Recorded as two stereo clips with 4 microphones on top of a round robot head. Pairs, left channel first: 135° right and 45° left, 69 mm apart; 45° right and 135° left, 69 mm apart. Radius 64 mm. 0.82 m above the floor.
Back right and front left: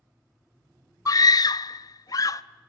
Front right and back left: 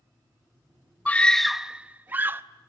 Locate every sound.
1.1 s a scream: 110° right, 0.6 m; by 2.4 s 165° right, 1.1 m